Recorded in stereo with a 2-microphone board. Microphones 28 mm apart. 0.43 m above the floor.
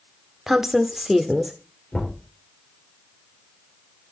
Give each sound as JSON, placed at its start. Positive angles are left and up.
{"t": 0.5, "sound": "a woman speaking", "side_deg": -20, "distance_m": 0.8}
{"t": 1.9, "sound": "knocking", "side_deg": 30, "distance_m": 6.5}